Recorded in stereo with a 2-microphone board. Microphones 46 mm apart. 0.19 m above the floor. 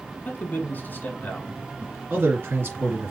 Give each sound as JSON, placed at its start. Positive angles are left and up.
{"t": 0.2, "sound": "a man speaking", "side_deg": 45, "distance_m": 1.6}
{"t": 2.1, "sound": "a man speaking", "side_deg": -55, "distance_m": 2.5}